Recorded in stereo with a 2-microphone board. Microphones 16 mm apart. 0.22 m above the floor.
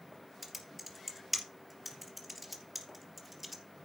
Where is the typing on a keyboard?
5° right (ahead or behind), 2.5 m.